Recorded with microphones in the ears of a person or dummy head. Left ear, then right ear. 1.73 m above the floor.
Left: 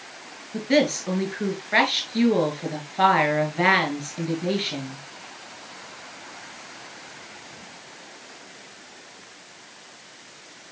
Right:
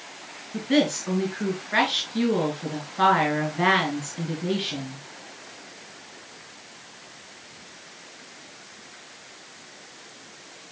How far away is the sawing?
No sawing in this recording.